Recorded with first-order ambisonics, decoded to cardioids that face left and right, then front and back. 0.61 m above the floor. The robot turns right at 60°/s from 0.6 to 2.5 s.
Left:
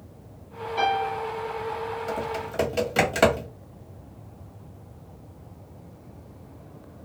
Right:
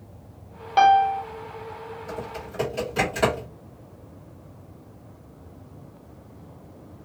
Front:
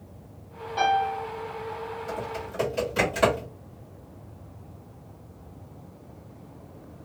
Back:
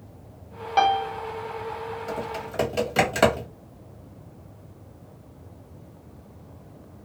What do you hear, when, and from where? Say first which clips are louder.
0.8 s a piano: right 8 dB, back 2 dB; 130° right, 0.7 m; by 1.2 s 105° right, 0.7 m
2.1 s typing on a keyboard: left 5 dB, back 2 dB; 110° left, 1.3 m; by 3.5 s 135° left, 1.3 m